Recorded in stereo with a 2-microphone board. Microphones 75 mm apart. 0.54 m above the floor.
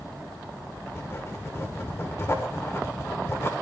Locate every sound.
0.9 s writing: 35° left (ahead or behind), 1.4 m